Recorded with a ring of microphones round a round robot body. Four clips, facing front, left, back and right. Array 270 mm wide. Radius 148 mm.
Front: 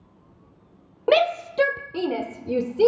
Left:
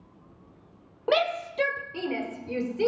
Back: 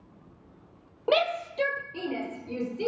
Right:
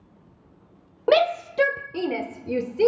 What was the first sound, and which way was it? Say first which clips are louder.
A shout: right 6 dB, front 6 dB; 50° right.